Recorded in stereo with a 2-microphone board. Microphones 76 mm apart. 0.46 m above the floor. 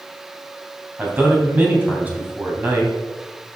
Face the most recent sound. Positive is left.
turn(degrees=-25)  # may be behind; listen again after turning